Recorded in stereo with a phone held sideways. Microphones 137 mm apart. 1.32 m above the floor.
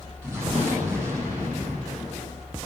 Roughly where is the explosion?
Centre.